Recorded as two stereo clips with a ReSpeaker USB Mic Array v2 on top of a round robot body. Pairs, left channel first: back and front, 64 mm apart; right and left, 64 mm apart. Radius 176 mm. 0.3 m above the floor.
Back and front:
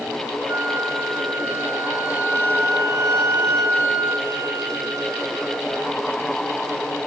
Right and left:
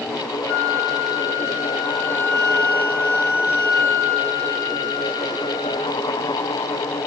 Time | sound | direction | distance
0.5 | a flute | 35° right | 4.5 m